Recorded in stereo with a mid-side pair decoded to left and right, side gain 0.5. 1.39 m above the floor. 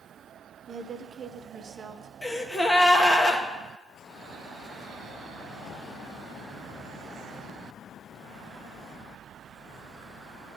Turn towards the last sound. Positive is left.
turn(degrees=10)